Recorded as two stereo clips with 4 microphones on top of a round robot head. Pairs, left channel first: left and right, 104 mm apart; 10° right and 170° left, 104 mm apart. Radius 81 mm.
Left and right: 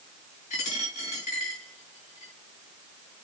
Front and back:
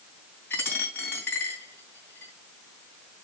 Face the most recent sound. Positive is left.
turn(degrees=60)